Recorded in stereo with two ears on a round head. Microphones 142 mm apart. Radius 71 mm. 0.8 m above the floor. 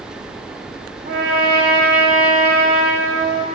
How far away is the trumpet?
About 1.1 m.